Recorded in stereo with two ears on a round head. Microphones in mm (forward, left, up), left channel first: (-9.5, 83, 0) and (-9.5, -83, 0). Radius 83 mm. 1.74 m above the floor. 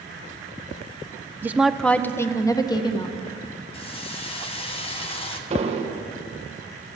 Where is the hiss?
30° left (ahead or behind), 1.5 m.